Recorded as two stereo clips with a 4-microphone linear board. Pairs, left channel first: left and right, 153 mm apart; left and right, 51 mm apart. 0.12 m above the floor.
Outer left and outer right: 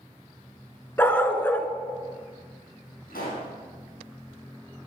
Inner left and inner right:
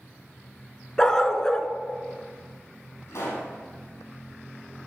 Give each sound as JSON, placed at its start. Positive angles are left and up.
{"t": 1.0, "sound": "a dog barking", "side_deg": 15, "distance_m": 0.5}
{"t": 3.1, "sound": "a pop", "side_deg": 75, "distance_m": 3.5}